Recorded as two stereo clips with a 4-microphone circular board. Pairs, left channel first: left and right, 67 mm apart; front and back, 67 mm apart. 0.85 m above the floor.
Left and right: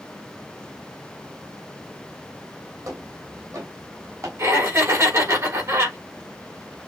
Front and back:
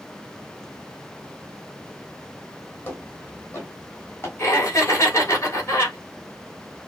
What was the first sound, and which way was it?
Footsteps, 60° right.